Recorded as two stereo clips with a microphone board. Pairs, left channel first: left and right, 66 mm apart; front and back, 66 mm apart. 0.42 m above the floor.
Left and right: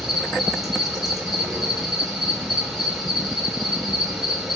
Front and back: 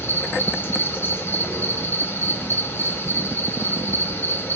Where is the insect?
5° right, 2 m.